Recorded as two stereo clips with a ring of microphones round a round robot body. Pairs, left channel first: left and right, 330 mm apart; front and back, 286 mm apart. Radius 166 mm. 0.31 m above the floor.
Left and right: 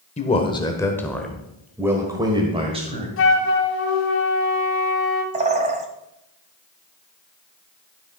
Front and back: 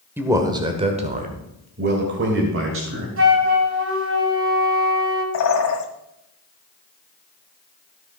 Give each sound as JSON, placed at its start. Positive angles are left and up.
{"t": 0.2, "sound": "a man speaking", "azimuth_deg": 110, "distance_m": 1.4}
{"t": 3.2, "sound": "a flute", "azimuth_deg": 140, "distance_m": 2.0}
{"t": 5.3, "sound": "a bird", "azimuth_deg": -20, "distance_m": 1.6}